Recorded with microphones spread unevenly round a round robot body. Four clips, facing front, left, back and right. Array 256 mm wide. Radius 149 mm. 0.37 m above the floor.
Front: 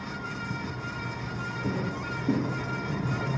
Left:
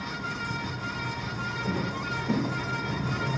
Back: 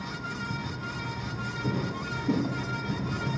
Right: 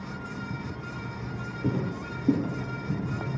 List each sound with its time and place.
1.6 s footsteps: 95° right, 3.5 m; by 3.0 s 85° right, 3.5 m